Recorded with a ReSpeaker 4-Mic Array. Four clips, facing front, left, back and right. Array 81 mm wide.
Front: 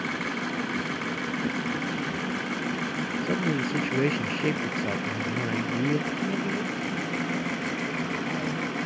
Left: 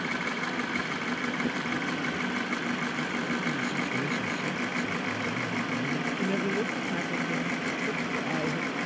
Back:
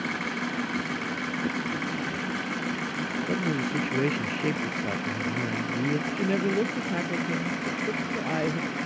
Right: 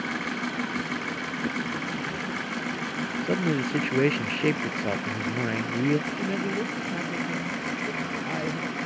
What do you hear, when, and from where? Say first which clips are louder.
3.2 s a man speaking: right 4 dB, front 1 dB; 80° right
6.1 s a woman speaking: even, back 3 dB; 175° left